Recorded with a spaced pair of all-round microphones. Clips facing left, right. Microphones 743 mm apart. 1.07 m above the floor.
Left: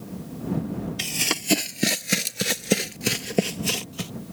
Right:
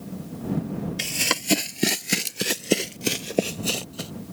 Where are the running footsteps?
10° right (ahead or behind); by 4.1 s 40° left (ahead or behind).